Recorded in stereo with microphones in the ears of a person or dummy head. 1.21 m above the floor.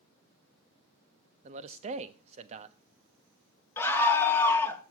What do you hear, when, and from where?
1.4 s a man speaking: 35° right (ahead or behind), 1.2 m
3.8 s a scream: 15° left (ahead or behind), 1.9 m